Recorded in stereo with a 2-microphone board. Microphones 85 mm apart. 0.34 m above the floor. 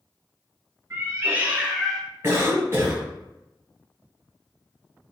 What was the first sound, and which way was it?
A cat meowing, 35° right (ahead or behind).